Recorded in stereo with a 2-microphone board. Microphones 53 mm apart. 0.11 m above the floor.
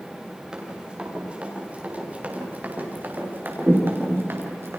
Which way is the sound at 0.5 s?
15° right (ahead or behind).